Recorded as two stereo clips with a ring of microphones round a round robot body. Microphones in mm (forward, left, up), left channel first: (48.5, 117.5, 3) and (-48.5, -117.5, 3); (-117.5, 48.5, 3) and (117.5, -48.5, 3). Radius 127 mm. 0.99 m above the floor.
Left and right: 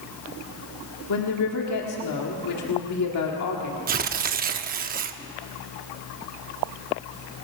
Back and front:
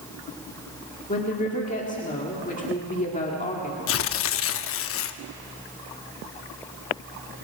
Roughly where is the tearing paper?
Behind.